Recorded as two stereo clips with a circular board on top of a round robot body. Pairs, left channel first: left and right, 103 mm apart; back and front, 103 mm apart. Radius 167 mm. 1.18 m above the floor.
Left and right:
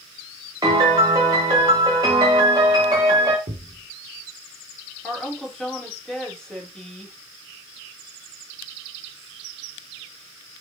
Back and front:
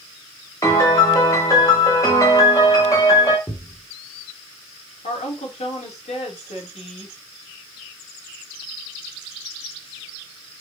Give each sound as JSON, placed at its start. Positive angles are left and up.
{"t": 0.6, "sound": "a piano", "azimuth_deg": -130, "distance_m": 1.0}
{"t": 3.5, "sound": "a thud", "azimuth_deg": -115, "distance_m": 1.6}
{"t": 5.0, "sound": "a woman speaking", "azimuth_deg": 175, "distance_m": 3.5}